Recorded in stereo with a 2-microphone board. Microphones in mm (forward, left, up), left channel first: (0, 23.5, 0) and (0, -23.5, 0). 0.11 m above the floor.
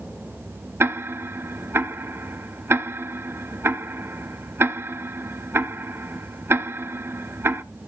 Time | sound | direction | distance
0.8 | ticking | 50° right (ahead or behind) | 0.8 m